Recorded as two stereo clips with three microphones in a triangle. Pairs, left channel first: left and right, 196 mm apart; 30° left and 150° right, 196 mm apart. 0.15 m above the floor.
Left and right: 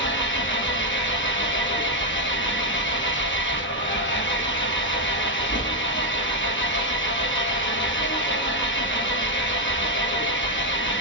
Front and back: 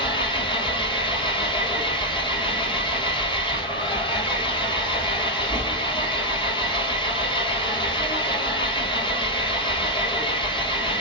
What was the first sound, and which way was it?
An engine running, 95° left.